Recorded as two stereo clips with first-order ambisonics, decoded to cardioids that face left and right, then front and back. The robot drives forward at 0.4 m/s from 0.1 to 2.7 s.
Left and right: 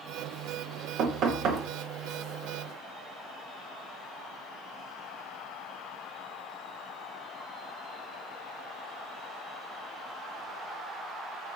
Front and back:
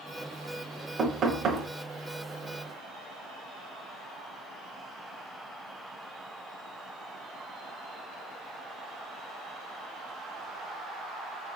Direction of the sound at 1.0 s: 120° right.